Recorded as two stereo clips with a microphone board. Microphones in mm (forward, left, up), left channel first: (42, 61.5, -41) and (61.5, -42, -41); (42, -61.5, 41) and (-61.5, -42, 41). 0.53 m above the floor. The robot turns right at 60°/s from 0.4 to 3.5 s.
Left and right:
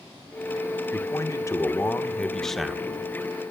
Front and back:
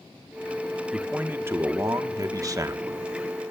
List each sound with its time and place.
0.9 s a man speaking: 90° left, 1.0 m; by 3.1 s 140° right, 1.0 m